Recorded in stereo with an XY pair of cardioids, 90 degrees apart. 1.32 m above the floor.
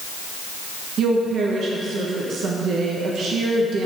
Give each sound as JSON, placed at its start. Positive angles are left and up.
{"t": 1.0, "sound": "a woman speaking", "azimuth_deg": -65, "distance_m": 1.2}